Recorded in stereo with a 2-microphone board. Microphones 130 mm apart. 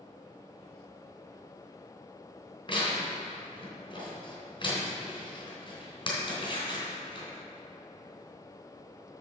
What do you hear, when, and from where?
2.7 s tearing paper: 40° left (ahead or behind), 3.5 m